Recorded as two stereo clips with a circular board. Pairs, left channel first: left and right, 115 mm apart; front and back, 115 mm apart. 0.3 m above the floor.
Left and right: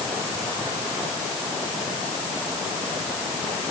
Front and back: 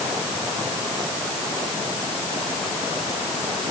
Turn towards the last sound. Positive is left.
No sound to turn to.